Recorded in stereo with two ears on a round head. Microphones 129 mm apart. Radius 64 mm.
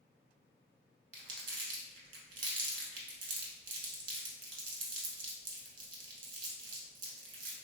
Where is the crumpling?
60° right (ahead or behind), 0.9 m.